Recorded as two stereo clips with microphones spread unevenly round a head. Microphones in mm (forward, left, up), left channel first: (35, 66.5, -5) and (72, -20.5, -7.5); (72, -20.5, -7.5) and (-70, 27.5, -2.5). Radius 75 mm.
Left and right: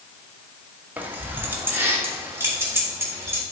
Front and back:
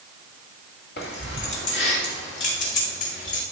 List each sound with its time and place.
1.0 s keys jangling: 5° left, 2 m; by 3.4 s 5° right, 4 m